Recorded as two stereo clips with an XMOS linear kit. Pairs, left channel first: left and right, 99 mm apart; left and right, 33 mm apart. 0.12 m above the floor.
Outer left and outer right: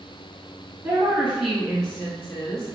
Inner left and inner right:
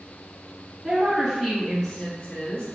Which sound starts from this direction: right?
A woman speaking, at 0.8 s.